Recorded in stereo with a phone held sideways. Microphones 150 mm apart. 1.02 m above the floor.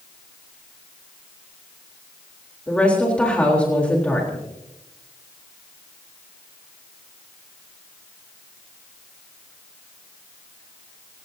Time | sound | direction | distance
2.7 | a woman speaking | 10° left (ahead or behind) | 3.5 m